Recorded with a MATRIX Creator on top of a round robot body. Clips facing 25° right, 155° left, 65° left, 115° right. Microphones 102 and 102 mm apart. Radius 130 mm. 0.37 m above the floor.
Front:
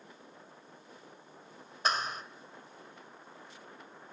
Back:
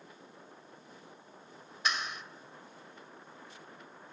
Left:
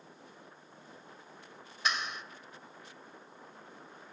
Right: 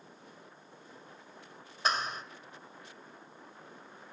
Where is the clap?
65° right, 2.0 m.